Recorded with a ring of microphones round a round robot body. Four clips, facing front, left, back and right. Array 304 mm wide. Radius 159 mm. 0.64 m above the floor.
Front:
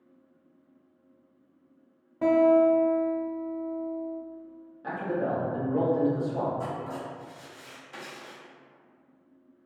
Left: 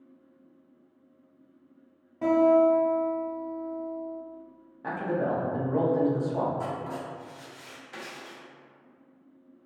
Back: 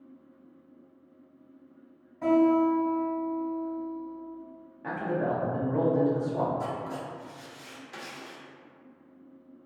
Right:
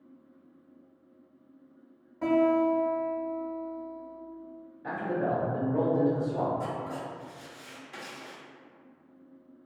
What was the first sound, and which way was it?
A guitar, 10° left.